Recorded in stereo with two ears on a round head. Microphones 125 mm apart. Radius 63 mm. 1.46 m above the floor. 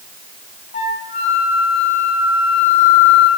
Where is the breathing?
No breathing in this recording.